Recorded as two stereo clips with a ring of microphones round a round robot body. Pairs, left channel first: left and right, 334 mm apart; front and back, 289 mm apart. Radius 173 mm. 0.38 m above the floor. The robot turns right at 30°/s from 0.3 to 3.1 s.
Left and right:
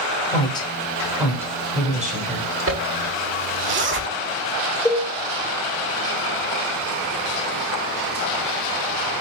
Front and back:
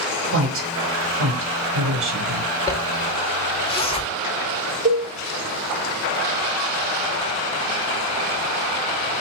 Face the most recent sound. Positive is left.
turn(degrees=165)